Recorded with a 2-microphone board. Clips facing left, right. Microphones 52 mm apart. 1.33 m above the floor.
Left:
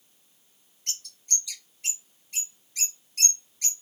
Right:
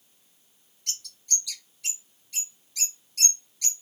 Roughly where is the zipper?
I don't hear a zipper.